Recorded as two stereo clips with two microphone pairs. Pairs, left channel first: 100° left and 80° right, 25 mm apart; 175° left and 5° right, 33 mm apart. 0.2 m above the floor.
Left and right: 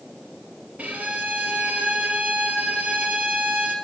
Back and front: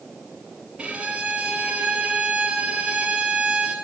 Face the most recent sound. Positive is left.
turn(degrees=-60)